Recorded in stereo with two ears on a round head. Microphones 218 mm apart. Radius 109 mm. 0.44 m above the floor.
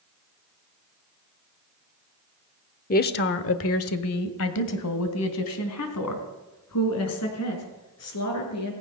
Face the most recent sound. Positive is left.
turn(degrees=70)  # may be behind; listen again after turning